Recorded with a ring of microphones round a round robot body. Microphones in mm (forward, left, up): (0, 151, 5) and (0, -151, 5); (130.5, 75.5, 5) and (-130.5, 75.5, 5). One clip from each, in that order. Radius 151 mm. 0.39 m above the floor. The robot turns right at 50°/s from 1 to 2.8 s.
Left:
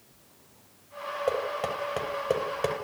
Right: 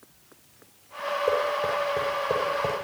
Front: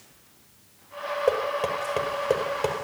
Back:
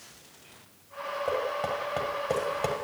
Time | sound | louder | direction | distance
1.3 | knocking | right 4 dB, front 5 dB | 20° left | 6.5 m